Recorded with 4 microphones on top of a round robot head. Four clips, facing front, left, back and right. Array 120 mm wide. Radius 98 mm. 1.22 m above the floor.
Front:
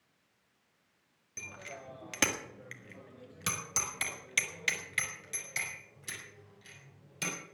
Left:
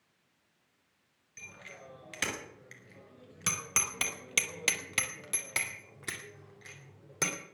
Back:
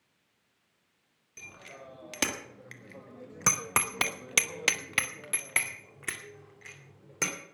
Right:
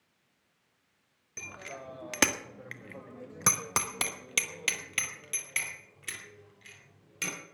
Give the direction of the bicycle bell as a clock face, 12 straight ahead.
3 o'clock.